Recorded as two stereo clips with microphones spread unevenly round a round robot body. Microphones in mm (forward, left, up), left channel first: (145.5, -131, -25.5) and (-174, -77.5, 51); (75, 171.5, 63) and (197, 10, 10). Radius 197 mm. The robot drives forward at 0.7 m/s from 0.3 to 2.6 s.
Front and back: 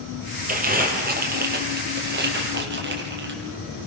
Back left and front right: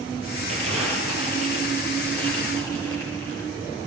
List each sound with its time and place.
0.5 s crumpling: 125° right, 8 m; by 3.4 s 130° right, 9 m